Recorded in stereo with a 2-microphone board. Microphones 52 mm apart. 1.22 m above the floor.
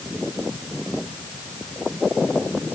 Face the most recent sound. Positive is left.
No sound to turn to.